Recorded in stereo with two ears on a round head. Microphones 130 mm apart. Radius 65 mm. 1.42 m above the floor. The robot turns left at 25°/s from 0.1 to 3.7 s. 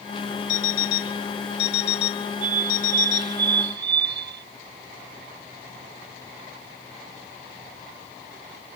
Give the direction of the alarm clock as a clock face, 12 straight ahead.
8 o'clock.